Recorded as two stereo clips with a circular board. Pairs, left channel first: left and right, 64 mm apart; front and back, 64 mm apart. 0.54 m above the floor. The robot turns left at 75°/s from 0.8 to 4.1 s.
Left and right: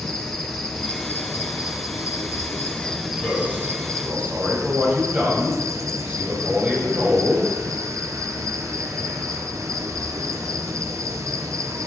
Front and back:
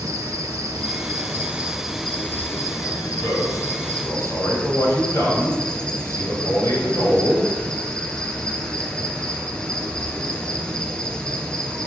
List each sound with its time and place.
0.0 s an insect: 170° left, 1.2 m; by 11.9 s 75° right, 1.2 m
3.2 s a man speaking: 35° left, 4 m; by 7.5 s 30° right, 4 m